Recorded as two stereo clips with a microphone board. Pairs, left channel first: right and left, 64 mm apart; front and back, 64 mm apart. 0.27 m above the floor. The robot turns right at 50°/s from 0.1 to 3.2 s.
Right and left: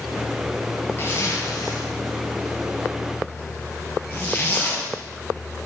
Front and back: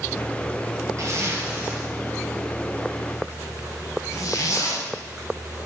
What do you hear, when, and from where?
1.0 s a zipper: 140° right, 2.5 m; by 4.9 s 30° right, 2.5 m